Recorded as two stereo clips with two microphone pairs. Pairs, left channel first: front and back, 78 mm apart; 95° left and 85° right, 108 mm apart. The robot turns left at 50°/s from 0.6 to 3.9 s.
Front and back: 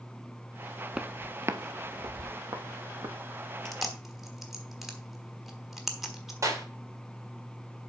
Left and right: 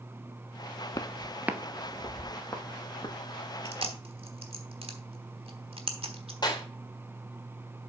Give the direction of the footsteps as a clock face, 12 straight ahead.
8 o'clock.